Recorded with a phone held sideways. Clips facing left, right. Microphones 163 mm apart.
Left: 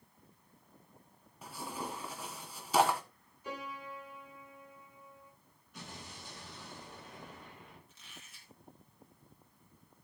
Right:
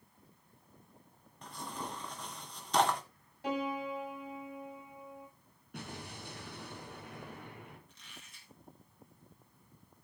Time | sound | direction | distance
1.4 | tearing paper | 5° left (ahead or behind) | 1.8 m
3.4 | a piano | 80° right | 8 m
5.7 | an explosion | 60° right (ahead or behind) | 5 m
7.9 | a squeak | 5° left (ahead or behind) | 4.5 m